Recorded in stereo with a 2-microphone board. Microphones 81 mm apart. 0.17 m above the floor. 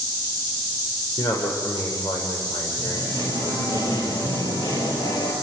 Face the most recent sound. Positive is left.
turn(degrees=70)  # may be behind; listen again after turning